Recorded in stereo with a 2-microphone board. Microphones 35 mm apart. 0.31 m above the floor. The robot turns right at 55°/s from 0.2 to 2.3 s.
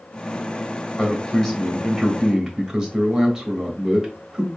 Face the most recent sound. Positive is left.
turn(degrees=-145)